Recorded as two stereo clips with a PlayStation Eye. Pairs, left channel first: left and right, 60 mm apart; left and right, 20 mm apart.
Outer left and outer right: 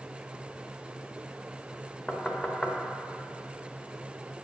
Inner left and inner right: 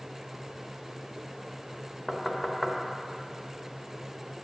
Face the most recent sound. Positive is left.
turn(degrees=20)  # may be behind; listen again after turning